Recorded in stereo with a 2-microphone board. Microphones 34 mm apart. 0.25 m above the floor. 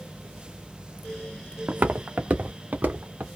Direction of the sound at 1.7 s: 70° right (ahead or behind).